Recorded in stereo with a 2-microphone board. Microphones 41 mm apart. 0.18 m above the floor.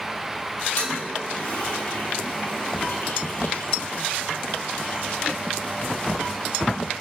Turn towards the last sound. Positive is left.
turn(degrees=65)  # may be behind; listen again after turning